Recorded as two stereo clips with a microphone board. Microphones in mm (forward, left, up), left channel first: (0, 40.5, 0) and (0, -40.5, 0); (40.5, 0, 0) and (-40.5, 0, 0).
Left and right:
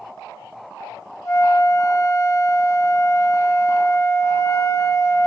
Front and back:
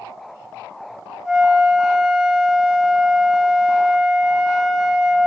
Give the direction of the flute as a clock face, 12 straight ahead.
9 o'clock.